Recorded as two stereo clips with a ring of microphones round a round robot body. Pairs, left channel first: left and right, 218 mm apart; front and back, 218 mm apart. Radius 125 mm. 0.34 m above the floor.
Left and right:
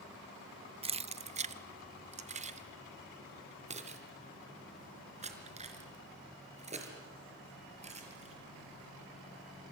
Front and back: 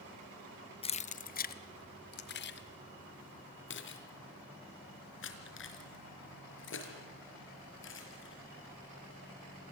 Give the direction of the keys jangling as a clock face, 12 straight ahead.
2 o'clock.